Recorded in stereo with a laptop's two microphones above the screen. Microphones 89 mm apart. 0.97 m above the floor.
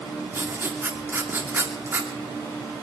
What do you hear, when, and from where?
0.3 s writing: 25° right (ahead or behind), 2.5 m